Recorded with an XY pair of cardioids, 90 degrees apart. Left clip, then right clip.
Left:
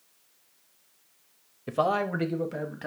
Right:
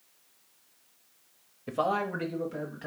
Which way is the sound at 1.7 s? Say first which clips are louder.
Left 3 dB; 25° left.